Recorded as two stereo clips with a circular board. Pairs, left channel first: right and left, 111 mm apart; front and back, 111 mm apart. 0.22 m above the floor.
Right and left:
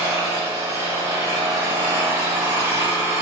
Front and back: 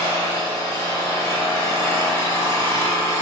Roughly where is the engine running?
Ahead left.